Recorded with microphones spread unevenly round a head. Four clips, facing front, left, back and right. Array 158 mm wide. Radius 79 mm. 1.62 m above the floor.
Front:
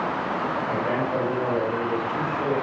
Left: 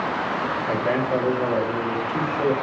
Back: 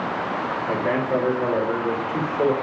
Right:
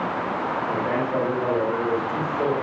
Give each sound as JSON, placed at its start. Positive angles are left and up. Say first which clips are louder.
{"t": 0.7, "sound": "a man speaking", "louder": "left 4 dB, back 5 dB", "azimuth_deg": 170, "distance_m": 7.0}